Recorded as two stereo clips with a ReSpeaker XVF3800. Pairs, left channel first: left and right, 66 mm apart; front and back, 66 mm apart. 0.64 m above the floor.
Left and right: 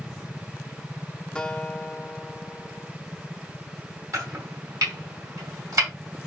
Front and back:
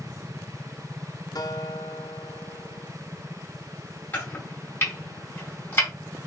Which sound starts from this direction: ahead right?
Chopping, at 4.1 s.